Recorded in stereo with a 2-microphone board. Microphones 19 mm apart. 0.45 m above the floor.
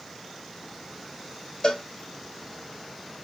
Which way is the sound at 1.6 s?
50° left (ahead or behind).